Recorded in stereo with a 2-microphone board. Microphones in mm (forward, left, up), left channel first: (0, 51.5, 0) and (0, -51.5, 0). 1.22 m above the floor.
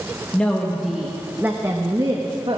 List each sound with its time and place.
0.3 s a woman speaking: 10° left (ahead or behind), 1.2 m; by 2.6 s 55° right (ahead or behind), 1.3 m